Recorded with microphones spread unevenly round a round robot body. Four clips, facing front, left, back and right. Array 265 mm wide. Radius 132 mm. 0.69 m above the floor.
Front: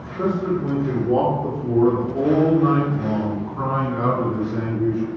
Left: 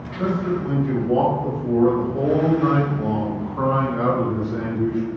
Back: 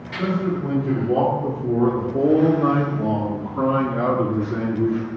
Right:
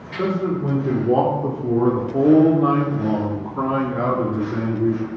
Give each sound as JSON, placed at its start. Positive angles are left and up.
{"t": 0.2, "sound": "a man speaking", "azimuth_deg": -75, "distance_m": 2.5}